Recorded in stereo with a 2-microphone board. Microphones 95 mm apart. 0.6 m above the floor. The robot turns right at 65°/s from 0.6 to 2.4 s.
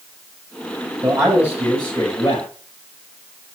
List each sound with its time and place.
1.0 s a man speaking: 40° right, 4 m; by 2.5 s 50° left, 4 m